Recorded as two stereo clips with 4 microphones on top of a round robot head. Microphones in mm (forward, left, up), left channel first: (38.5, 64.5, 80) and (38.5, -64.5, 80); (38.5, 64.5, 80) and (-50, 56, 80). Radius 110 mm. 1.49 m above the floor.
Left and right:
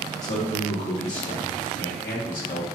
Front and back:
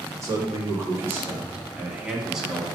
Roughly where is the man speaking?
Behind left.